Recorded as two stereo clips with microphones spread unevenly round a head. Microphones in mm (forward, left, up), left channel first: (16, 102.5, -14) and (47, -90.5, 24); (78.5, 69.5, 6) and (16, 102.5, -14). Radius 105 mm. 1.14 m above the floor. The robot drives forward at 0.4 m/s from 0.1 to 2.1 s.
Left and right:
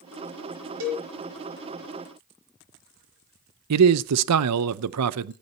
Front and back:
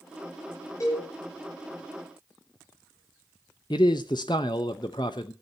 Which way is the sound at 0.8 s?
90° right.